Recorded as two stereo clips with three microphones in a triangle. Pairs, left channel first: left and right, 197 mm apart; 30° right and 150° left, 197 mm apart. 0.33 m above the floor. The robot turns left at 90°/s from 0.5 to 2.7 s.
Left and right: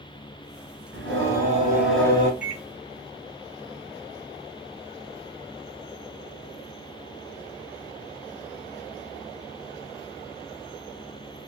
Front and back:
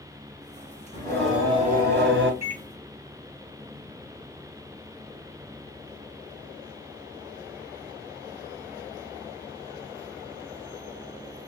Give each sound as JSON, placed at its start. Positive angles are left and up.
{"t": 0.9, "sound": "singing", "azimuth_deg": -90, "distance_m": 1.5}
{"t": 2.4, "sound": "a microwave", "azimuth_deg": -100, "distance_m": 1.8}